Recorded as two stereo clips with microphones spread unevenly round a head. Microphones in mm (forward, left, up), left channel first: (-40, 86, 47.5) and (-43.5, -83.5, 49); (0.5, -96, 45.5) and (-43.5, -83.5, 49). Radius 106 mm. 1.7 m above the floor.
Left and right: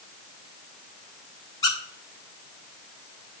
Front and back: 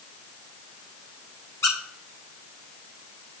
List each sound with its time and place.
1.6 s a squeak: 20° left, 0.8 m